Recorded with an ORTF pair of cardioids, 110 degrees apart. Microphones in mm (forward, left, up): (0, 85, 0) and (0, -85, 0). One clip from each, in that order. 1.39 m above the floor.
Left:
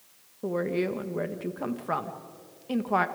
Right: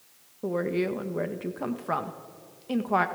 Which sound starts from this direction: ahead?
A woman speaking, at 0.4 s.